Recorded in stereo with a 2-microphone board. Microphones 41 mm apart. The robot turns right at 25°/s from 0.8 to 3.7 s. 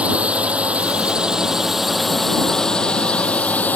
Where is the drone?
30° right; by 3.8 s 40° left.